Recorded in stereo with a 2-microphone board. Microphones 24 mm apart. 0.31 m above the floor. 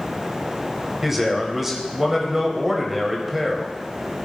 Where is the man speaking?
10° right (ahead or behind), 1.3 m.